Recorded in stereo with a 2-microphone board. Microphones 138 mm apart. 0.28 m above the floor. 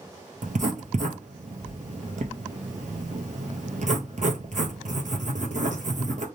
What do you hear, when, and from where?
0.4 s writing: 70° right (ahead or behind), 0.9 m